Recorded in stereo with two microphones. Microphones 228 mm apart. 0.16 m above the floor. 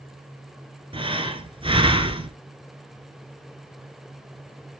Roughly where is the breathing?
Right.